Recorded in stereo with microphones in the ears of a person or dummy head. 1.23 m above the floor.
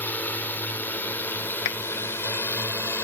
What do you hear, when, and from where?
0.0 s a drone: 10° left (ahead or behind); by 3.0 s 15° left (ahead or behind)
1.6 s a clap: 65° left (ahead or behind)